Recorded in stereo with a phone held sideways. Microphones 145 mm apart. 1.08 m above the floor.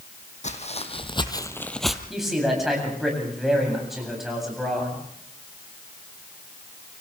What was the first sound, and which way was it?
Footsteps, 55° left (ahead or behind).